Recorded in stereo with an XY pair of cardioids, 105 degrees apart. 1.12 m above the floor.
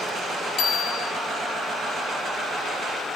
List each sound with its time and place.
0.6 s a bicycle bell: 65° left, 3.5 m